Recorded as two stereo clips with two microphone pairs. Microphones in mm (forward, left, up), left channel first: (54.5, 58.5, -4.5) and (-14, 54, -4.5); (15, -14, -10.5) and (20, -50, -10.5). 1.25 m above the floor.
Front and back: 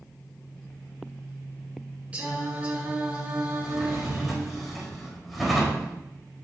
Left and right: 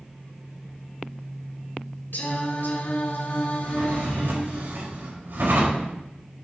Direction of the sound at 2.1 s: 110° left.